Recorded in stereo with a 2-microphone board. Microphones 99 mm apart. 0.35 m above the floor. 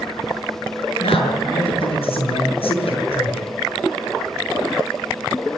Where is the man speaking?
70° left (ahead or behind), 7 m.